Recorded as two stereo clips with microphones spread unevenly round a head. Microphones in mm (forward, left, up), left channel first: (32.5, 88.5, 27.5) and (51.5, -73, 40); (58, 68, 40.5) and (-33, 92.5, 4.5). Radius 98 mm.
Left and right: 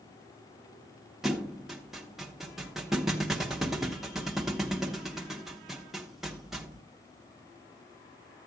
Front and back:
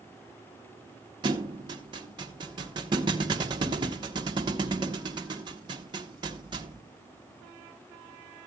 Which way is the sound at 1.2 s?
160° right.